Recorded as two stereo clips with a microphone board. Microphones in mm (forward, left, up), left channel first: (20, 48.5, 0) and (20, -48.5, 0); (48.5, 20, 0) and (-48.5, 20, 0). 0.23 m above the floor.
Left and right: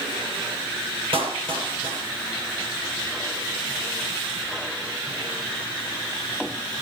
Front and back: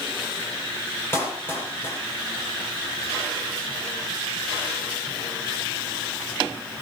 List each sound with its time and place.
1.1 s a clap: 65° right, 5 m